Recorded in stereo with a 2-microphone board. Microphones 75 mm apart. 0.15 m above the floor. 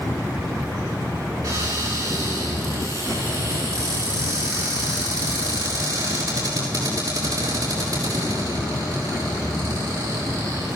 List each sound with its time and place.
1.4 s a cupboard door: 45° right (ahead or behind), 7.5 m